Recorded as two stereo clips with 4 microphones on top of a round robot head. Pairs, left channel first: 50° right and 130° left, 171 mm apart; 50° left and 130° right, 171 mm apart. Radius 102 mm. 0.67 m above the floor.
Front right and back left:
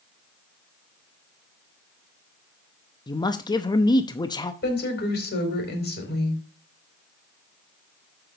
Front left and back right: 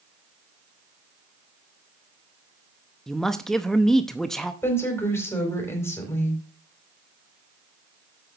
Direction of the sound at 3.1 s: 35° right.